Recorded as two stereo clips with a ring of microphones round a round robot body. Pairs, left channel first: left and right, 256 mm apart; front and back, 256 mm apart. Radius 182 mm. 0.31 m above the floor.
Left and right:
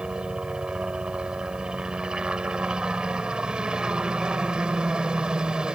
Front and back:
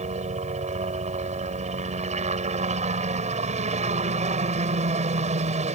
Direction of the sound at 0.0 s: 175° right.